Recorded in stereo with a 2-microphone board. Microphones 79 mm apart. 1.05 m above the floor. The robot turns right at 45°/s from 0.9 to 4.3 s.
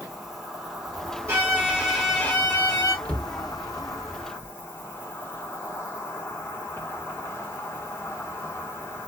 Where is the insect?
5° right, 1.0 m; by 9.1 s 145° left, 1.0 m.